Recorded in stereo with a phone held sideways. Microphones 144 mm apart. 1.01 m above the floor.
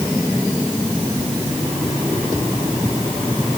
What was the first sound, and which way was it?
Only background noise.